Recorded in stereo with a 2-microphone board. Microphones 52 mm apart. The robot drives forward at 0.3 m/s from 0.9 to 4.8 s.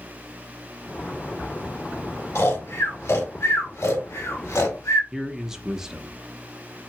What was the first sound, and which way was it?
Snoring, 60° left (ahead or behind).